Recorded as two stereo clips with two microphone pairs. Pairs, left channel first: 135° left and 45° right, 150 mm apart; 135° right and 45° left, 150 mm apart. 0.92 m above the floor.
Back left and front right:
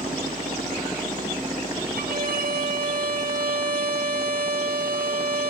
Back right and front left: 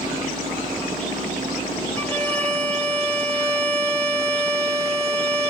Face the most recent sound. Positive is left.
turn(degrees=-60)